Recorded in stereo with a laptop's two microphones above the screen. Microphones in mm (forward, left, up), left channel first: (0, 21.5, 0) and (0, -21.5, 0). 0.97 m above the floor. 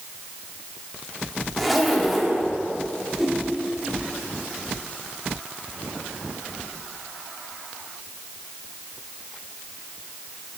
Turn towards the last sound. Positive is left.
turn(degrees=0)  # may be behind; listen again after turning